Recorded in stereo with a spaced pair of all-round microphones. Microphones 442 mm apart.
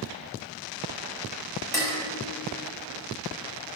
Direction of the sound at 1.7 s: 5° left (ahead or behind).